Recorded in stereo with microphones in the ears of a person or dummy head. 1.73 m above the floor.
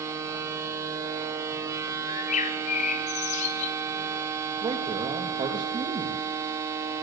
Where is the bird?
40° left (ahead or behind), 2.5 m.